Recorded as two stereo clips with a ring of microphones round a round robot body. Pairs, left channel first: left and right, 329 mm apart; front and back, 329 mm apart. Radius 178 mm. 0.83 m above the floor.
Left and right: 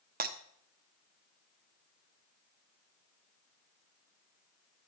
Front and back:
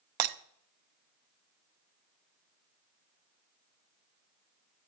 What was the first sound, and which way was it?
Breaking glass, 160° right.